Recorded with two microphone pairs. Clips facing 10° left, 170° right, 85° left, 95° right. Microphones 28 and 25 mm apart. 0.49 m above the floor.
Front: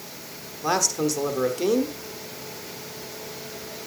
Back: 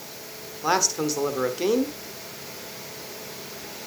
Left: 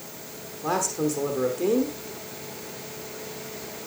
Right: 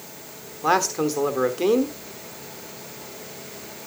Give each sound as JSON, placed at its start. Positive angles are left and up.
{"t": 0.6, "sound": "a man speaking", "azimuth_deg": -95, "distance_m": 1.0}